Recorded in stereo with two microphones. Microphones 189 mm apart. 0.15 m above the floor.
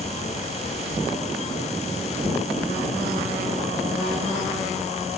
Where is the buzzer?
I don't hear a buzzer.